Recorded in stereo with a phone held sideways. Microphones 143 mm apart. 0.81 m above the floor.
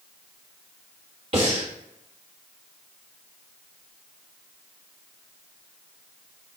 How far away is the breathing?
About 1.4 m.